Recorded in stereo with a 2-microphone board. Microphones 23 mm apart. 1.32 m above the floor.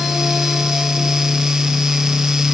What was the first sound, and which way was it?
Only background noise.